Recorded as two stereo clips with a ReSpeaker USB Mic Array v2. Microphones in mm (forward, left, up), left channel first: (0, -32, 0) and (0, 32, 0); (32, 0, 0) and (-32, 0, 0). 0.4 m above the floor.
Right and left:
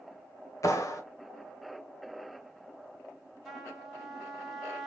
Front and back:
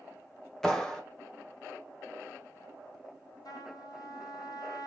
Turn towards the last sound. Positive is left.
turn(degrees=0)